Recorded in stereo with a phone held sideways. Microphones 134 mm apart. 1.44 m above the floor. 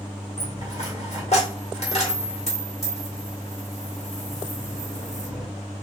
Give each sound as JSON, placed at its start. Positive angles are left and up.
{"t": 0.4, "sound": "a dropped coin", "side_deg": 55, "distance_m": 1.7}